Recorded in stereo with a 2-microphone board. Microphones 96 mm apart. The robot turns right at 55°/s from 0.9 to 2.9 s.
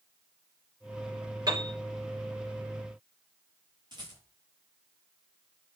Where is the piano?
45° right (ahead or behind), 4 m; by 1.8 s 60° right (ahead or behind), 4 m.